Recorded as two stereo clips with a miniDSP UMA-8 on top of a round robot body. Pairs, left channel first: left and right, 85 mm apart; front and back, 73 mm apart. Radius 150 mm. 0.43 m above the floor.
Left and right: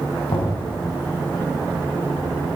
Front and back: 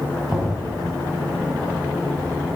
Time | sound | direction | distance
0.3 | knocking | 95° left | 2.5 m